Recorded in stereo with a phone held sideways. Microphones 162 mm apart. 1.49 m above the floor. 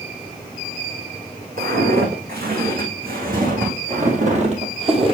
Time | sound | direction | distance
1.6 | footsteps | 70° right (ahead or behind) | 4.5 m